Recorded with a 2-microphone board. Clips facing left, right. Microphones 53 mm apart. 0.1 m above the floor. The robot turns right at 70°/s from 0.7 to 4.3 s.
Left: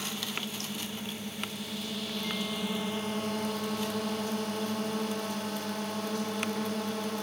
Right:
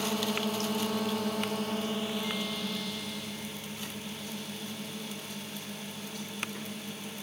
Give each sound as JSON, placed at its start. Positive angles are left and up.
{"t": 0.0, "sound": "a drone", "side_deg": -55}